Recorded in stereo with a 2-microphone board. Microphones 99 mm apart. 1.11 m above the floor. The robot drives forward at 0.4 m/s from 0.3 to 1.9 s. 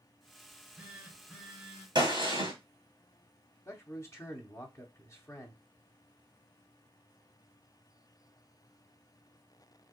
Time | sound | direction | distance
0.5 | a phone buzzing | 10° right (ahead or behind) | 0.7 m
1.9 | a gunshot | 50° right (ahead or behind) | 1.3 m
3.6 | a man speaking | 30° left (ahead or behind) | 0.7 m